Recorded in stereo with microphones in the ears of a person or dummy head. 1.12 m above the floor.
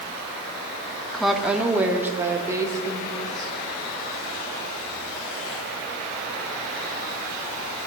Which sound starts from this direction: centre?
A woman speaking, at 1.1 s.